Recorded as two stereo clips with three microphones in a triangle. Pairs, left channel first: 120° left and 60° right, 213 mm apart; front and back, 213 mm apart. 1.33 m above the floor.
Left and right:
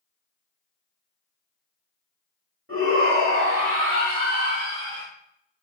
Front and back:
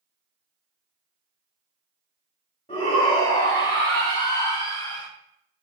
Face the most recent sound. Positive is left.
turn(degrees=-30)